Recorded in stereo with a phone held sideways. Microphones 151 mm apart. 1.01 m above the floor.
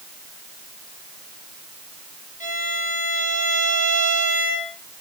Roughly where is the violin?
Left.